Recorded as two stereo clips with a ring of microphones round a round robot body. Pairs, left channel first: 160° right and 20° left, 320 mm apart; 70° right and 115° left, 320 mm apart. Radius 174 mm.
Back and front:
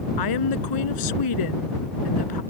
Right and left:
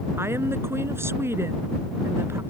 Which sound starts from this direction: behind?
A woman speaking, at 0.2 s.